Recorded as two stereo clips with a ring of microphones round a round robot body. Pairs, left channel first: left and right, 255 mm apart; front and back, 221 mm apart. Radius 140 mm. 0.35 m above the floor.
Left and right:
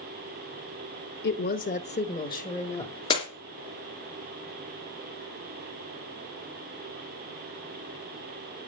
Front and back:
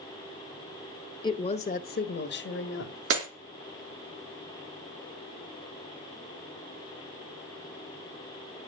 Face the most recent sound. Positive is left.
turn(degrees=160)